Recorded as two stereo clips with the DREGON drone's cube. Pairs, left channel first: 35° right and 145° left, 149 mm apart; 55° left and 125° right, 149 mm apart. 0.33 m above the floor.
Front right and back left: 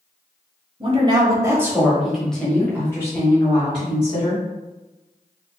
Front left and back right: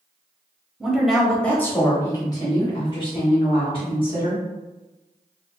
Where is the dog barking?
I don't hear a dog barking.